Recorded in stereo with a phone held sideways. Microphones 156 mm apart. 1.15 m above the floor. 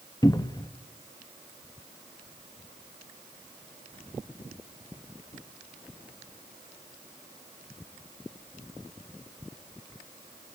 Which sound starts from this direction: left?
A cupboard door, at 0.2 s.